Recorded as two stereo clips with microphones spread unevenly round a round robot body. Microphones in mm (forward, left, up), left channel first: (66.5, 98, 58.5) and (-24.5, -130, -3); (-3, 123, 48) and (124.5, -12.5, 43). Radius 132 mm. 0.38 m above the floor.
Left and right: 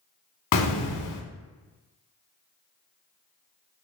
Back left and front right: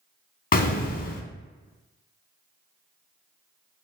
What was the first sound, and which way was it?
An explosion, 90° left.